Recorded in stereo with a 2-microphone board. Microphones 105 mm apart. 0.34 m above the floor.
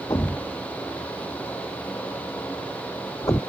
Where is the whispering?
I don't hear whispering.